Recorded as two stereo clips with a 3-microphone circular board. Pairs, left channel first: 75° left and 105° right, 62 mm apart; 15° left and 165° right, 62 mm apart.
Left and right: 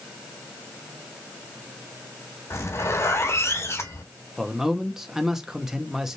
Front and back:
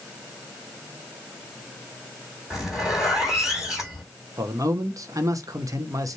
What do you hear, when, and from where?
2.5 s a zipper: 115° left, 3 m
4.4 s a man speaking: 175° left, 0.8 m